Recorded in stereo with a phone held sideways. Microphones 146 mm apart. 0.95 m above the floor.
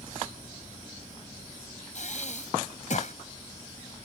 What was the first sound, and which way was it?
Breathing, 55° left (ahead or behind).